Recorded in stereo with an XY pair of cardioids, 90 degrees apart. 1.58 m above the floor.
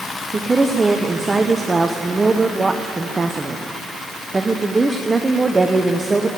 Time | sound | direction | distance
0.3 | a woman speaking | 20° right | 0.9 m